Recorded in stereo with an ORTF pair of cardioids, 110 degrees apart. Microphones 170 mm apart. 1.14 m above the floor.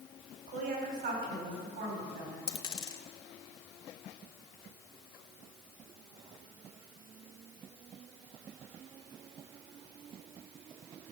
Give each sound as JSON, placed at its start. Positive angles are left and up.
{"t": 0.5, "sound": "a woman speaking", "azimuth_deg": -65, "distance_m": 5.0}
{"t": 2.5, "sound": "a dropped coin", "azimuth_deg": 30, "distance_m": 1.7}